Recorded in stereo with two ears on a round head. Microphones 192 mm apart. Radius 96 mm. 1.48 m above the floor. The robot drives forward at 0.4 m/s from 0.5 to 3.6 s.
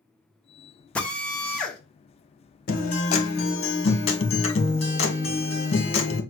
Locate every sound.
0.9 s a drill: 5° left (ahead or behind), 0.8 m
2.7 s a guitar: 40° left (ahead or behind), 0.9 m; by 6.2 s 30° left (ahead or behind), 1.2 m